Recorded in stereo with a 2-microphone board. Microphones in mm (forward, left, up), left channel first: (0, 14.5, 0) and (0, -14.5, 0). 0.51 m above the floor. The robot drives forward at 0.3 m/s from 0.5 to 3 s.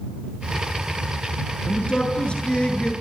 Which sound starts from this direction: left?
A man speaking, at 1.7 s.